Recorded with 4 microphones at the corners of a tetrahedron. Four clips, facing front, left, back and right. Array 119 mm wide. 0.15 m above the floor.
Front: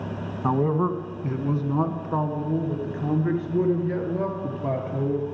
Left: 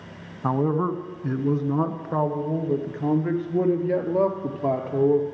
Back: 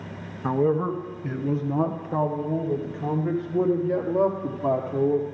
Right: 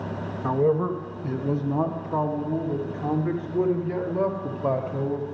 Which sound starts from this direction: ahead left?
A man speaking, at 0.4 s.